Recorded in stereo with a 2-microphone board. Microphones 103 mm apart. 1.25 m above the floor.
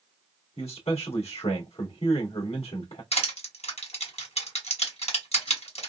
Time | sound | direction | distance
0.6 | a man speaking | 75° left (ahead or behind) | 2 m
3.1 | crushing | 80° left | 2.5 m